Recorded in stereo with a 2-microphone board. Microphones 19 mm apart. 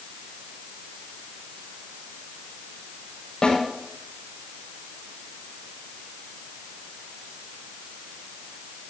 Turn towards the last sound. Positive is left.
turn(degrees=45)  # may be behind; listen again after turning